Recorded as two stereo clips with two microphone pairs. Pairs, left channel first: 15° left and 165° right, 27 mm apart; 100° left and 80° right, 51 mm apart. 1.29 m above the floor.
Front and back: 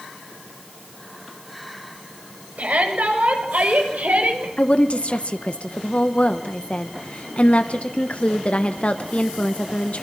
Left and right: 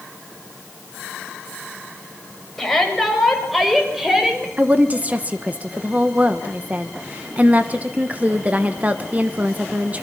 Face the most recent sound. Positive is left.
turn(degrees=-25)